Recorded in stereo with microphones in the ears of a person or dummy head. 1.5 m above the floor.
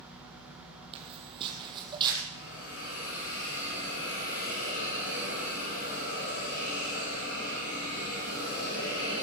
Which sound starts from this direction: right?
Footsteps, at 0.9 s.